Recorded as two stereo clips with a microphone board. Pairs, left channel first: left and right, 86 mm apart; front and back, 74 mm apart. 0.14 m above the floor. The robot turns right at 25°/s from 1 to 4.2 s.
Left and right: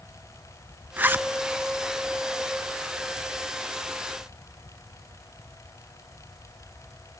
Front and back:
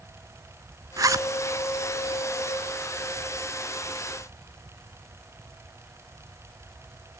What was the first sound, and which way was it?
A zipper, 155° right.